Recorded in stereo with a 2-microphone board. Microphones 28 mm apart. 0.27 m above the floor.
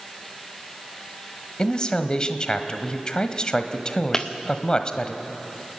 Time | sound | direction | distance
1.6 | a man speaking | 30° left (ahead or behind) | 1.3 m
4.1 | breaking glass | 25° left (ahead or behind) | 1.4 m